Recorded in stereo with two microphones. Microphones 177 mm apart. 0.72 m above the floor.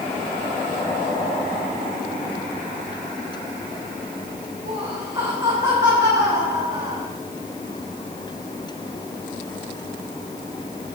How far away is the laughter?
About 4 m.